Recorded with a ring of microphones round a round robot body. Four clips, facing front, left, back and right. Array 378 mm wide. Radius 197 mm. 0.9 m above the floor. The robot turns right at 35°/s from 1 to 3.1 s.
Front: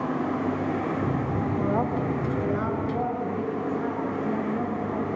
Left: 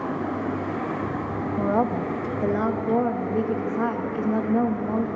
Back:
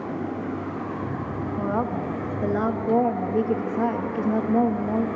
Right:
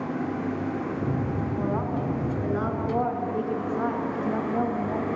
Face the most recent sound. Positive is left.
turn(degrees=150)